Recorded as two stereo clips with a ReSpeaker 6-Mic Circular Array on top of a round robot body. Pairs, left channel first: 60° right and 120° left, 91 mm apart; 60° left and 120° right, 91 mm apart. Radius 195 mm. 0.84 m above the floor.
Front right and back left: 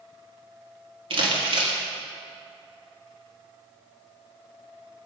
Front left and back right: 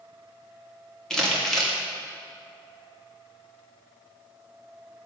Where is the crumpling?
145° left, 2 m.